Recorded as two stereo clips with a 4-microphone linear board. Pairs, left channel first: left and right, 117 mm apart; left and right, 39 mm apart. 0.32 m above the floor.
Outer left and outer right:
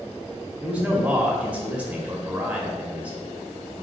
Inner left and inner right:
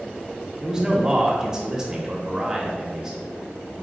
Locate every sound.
0.6 s a man speaking: 10° right (ahead or behind), 0.8 m